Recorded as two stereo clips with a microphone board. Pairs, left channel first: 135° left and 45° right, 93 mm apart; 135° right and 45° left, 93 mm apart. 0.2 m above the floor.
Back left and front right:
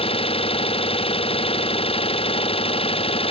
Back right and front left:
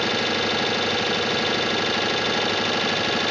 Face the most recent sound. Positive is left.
turn(degrees=135)